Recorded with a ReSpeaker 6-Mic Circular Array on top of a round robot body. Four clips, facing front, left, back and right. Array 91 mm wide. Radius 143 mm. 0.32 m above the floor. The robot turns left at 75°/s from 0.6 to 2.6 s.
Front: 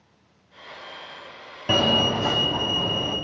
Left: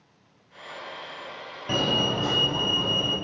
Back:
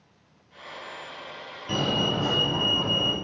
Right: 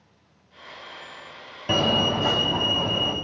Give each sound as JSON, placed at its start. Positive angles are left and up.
{"t": 1.7, "sound": "a fire alarm", "azimuth_deg": -25, "distance_m": 5.0}